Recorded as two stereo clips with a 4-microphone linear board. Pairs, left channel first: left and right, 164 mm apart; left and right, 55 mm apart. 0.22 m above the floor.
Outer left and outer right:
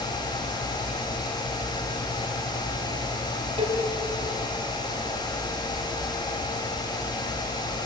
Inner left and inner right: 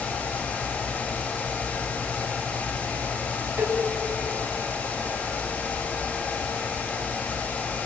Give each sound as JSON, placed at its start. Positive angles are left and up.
{"t": 3.6, "sound": "a cowbell", "side_deg": -40, "distance_m": 1.9}